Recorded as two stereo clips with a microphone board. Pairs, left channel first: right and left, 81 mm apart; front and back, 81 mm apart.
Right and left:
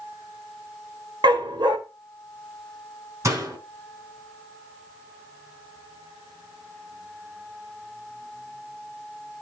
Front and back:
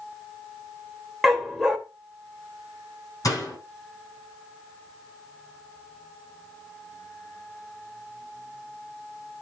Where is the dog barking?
95° left, 2 m.